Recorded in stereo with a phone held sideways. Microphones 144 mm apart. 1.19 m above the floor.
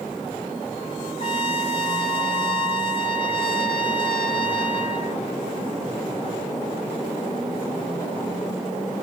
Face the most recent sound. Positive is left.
turn(degrees=35)  # may be behind; listen again after turning